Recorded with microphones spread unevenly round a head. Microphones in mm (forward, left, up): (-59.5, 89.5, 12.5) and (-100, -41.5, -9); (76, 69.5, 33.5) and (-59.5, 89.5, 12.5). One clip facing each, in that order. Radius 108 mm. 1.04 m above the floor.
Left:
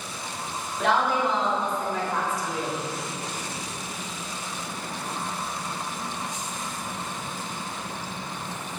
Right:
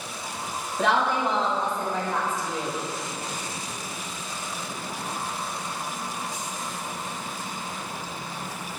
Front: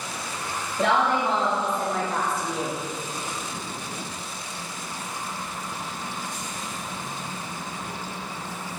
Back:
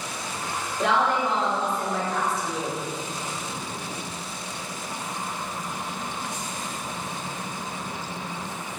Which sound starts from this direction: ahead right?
A woman speaking, at 0.8 s.